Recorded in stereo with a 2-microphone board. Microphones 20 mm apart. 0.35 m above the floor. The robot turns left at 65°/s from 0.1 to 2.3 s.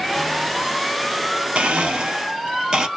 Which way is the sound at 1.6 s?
85° right.